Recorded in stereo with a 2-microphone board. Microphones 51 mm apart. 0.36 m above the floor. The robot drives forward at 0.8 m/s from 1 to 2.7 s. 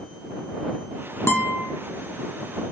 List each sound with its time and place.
1.3 s a guitar: 55° left (ahead or behind), 1.6 m; by 1.6 s 50° left (ahead or behind), 1.8 m